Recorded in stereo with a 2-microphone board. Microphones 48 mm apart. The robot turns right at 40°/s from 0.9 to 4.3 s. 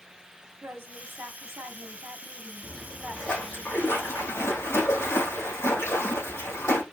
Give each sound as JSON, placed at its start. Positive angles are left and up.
{"t": 0.6, "sound": "a woman speaking", "azimuth_deg": -110, "distance_m": 2.5}
{"t": 2.6, "sound": "a splash", "azimuth_deg": 0, "distance_m": 5.0}